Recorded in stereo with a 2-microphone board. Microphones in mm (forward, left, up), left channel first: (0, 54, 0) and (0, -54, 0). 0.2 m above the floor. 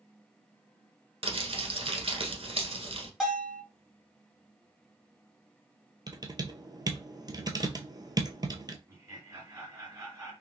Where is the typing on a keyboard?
40° right (ahead or behind), 0.7 m.